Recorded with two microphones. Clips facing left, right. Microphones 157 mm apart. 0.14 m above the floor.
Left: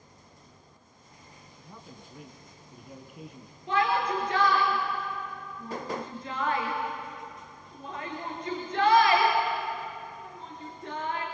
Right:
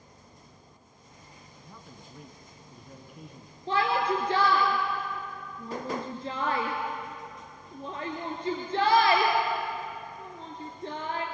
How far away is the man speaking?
About 1.5 m.